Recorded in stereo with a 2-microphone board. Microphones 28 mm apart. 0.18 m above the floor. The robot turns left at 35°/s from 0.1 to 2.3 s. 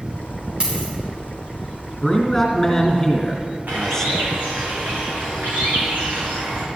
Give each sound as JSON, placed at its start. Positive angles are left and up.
{"t": 0.6, "sound": "a dropped coin", "side_deg": -35, "distance_m": 5.0}
{"t": 2.0, "sound": "a man speaking", "side_deg": 0, "distance_m": 3.0}
{"t": 3.7, "sound": "a bird", "side_deg": -85, "distance_m": 3.0}